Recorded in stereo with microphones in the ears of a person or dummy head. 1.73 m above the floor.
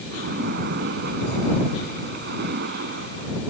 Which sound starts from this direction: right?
A splash, at 0.1 s.